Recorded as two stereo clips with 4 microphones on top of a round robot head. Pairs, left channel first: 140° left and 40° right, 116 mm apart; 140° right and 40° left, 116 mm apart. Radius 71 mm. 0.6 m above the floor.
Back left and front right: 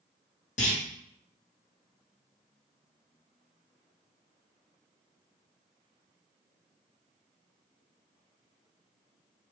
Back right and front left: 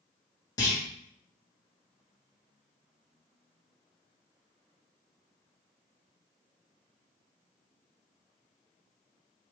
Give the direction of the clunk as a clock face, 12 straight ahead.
7 o'clock.